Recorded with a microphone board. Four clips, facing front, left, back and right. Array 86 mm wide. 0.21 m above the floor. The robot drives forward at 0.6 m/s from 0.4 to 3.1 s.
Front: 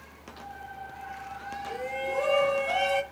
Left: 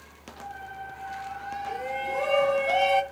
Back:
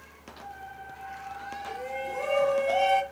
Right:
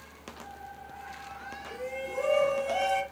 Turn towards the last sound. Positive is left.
turn(degrees=100)